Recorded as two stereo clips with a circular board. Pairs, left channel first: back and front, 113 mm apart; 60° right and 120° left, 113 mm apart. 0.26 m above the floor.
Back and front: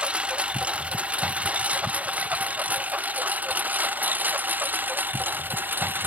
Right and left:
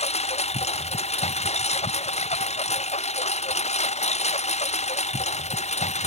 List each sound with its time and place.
0.0 s a lawn mower: 80° right; by 6.1 s 75° right